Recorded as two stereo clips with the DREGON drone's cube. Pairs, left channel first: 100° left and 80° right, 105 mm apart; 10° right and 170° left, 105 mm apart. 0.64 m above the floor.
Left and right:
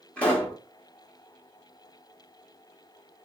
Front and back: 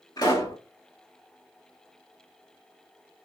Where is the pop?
30° left, 1.3 m.